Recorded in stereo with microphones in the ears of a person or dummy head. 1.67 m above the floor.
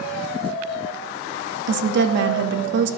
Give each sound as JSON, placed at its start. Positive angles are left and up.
{"t": 1.7, "sound": "a woman speaking", "side_deg": -60, "distance_m": 0.5}